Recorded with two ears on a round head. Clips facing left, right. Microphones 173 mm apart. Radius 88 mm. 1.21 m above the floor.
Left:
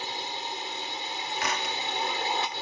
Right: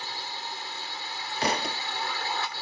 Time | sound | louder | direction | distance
0.0 | a drone | left 3 dB | 20° left (ahead or behind) | ?
1.4 | a thud | right 5 dB | 30° right (ahead or behind) | ?